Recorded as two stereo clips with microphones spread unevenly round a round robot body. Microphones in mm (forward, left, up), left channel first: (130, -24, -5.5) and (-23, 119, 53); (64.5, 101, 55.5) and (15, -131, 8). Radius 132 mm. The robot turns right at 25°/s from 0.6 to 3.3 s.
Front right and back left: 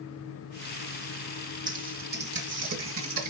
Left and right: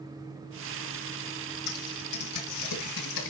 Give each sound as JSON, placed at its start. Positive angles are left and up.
{"t": 1.7, "sound": "typing on a keyboard", "azimuth_deg": 85, "distance_m": 2.5}